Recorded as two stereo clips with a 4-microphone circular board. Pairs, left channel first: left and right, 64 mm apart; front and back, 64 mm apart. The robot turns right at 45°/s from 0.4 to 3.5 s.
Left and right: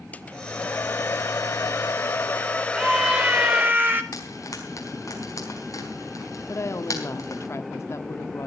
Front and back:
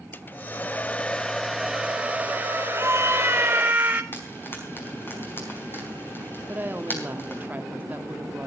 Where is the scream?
165° right, 1.3 m; by 4.0 s 130° right, 1.3 m.